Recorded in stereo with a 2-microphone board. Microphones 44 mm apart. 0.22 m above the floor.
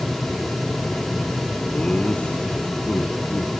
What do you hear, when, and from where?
1.7 s laughter: 25° left (ahead or behind), 3 m; by 3.5 s 45° left (ahead or behind), 2.5 m